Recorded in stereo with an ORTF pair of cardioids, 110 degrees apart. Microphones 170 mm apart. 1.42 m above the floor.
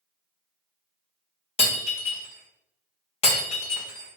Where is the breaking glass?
40° left, 1.5 m.